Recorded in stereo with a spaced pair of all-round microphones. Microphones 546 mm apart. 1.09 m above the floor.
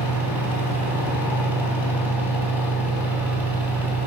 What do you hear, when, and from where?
0.0 s a fan: 5° right (ahead or behind), 3 m